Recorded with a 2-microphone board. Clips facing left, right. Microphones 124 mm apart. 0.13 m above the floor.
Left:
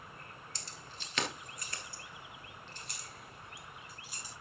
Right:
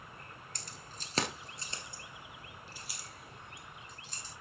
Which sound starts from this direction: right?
Keys jangling, at 0.6 s.